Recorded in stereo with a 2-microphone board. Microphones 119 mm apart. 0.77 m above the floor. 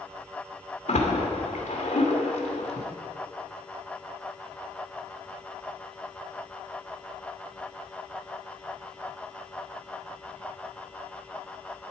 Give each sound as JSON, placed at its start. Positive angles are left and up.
{"t": 0.9, "sound": "a splash", "side_deg": 75, "distance_m": 2.0}